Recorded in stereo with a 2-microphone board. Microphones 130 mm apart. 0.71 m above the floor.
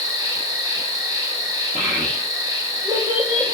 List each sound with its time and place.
0.0 s an insect: 30° right (ahead or behind), 1.0 m
1.8 s a child speaking: 30° right (ahead or behind), 0.6 m